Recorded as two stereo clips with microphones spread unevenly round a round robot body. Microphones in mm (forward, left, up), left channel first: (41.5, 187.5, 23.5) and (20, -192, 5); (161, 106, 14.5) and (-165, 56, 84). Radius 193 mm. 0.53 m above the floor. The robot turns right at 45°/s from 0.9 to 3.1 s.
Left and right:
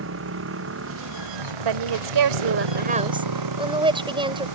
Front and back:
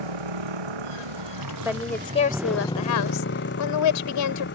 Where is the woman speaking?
85° right; by 4.5 s 15° right.